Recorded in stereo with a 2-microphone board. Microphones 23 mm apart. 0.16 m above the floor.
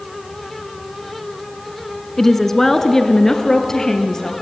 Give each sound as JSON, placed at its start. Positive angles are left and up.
{"t": 2.2, "sound": "a woman speaking", "side_deg": 10, "distance_m": 1.7}